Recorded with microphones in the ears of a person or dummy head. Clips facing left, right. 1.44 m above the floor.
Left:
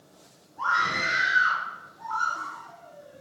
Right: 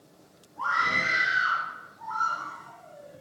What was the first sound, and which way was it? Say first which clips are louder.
A scream: left 1 dB; 35° left (ahead or behind).